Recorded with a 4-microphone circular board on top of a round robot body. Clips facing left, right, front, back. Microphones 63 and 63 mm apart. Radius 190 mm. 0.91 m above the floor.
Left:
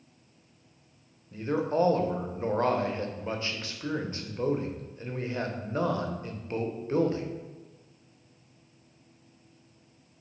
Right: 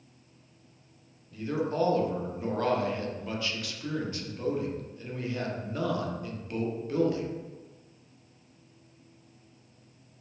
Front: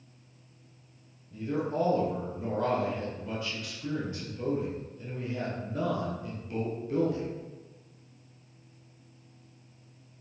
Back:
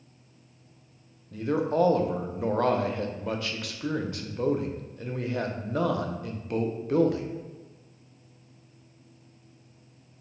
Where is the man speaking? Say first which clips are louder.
Left 3 dB, back 5 dB; 150° left, 0.5 m.